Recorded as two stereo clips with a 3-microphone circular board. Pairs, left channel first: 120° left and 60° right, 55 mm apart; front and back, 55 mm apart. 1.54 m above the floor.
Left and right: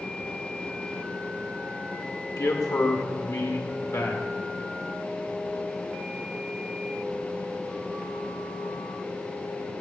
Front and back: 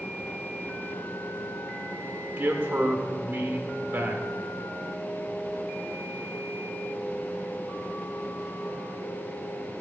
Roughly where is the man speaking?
Behind left.